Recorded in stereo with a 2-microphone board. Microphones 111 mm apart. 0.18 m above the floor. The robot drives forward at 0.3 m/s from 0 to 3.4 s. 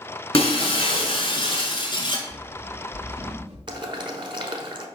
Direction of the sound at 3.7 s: 45° right (ahead or behind).